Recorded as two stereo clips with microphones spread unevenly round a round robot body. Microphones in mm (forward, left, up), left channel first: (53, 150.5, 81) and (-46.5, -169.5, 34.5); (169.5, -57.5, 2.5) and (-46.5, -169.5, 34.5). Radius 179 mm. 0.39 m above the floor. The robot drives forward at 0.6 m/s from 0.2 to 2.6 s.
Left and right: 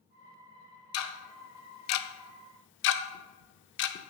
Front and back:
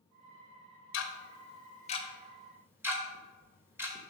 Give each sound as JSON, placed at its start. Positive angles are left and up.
{"t": 0.9, "sound": "ticking", "azimuth_deg": 25, "distance_m": 1.0}